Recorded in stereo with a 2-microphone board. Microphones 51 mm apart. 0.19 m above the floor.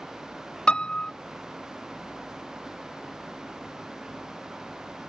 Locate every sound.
0.7 s a piano: 20° left (ahead or behind)